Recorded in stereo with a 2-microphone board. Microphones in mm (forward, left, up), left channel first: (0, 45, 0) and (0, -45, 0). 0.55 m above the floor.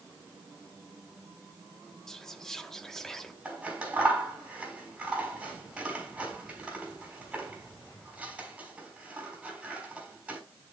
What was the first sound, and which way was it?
Whispering, 5° left (ahead or behind).